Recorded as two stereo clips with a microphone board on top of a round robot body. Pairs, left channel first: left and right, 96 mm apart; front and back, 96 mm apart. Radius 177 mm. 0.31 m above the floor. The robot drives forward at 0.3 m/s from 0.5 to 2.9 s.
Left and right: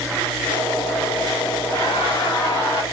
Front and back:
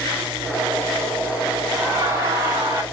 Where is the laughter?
115° left, 3 m; by 2.8 s 120° left, 3.5 m.